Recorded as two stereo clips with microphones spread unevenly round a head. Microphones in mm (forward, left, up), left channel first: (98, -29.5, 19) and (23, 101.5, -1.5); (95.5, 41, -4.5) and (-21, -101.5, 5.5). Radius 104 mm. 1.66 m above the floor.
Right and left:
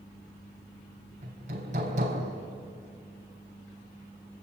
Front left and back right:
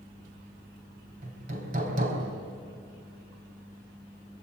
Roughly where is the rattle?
I don't hear a rattle.